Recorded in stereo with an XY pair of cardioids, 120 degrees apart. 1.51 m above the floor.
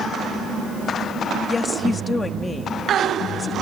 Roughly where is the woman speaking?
Ahead left.